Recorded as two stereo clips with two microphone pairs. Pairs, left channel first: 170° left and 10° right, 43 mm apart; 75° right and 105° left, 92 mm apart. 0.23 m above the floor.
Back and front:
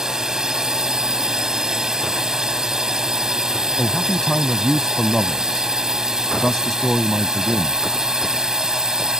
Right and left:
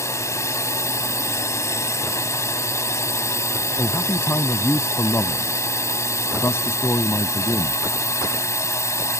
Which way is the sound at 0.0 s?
75° right.